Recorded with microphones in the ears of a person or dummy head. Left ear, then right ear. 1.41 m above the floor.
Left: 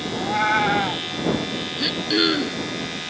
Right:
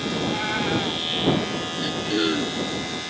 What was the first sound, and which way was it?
A cat meowing, 40° left (ahead or behind).